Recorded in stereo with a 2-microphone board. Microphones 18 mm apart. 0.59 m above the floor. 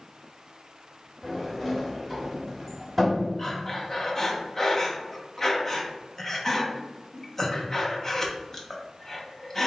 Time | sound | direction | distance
1.2 | a sliding door | 5° left (ahead or behind) | 1.1 m
3.4 | breathing | 20° left (ahead or behind) | 0.6 m